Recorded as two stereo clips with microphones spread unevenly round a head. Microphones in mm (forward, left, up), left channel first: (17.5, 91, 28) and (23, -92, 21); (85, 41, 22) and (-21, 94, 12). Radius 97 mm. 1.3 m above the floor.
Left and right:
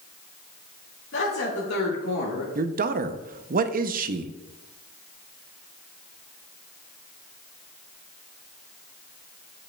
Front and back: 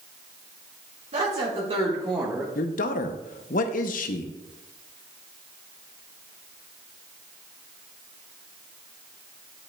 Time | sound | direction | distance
1.1 | a woman speaking | 125° left | 2 m
2.5 | a man speaking | 45° right | 0.6 m